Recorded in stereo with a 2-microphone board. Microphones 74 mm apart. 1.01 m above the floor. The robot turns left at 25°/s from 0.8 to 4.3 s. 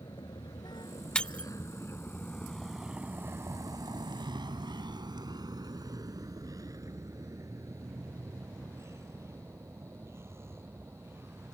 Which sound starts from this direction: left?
A vehicle, at 0.0 s.